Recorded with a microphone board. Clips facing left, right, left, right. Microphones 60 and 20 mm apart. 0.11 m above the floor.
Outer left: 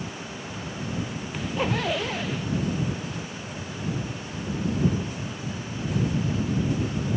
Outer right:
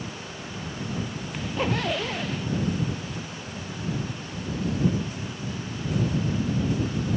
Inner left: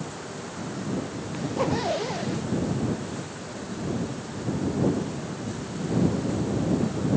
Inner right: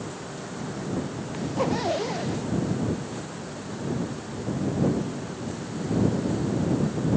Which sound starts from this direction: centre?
A zipper, at 1.3 s.